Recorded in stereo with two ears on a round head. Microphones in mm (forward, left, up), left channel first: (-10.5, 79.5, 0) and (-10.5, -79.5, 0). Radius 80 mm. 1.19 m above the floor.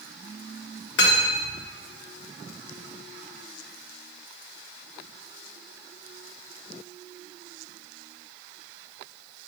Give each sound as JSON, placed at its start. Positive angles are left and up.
{"t": 1.0, "sound": "cutlery clinking", "side_deg": 65, "distance_m": 1.8}